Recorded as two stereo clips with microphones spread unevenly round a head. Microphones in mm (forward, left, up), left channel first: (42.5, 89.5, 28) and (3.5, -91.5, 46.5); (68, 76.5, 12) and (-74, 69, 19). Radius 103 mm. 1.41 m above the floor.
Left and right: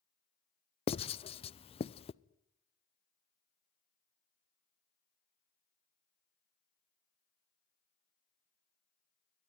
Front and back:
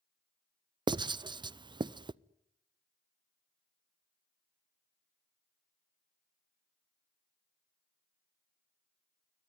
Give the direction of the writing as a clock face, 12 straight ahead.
8 o'clock.